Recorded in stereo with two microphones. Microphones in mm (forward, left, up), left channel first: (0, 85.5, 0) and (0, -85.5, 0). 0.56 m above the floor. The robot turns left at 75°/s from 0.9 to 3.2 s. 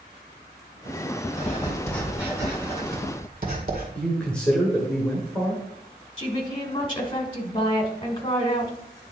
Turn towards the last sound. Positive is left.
turn(degrees=30)  # may be behind; listen again after turning